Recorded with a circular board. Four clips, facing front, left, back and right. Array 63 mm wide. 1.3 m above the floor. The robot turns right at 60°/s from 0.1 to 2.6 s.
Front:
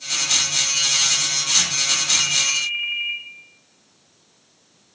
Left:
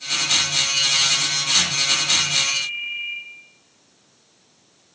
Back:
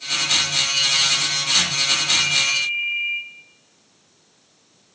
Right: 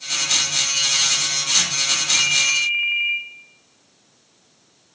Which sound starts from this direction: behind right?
A ringtone, at 2.1 s.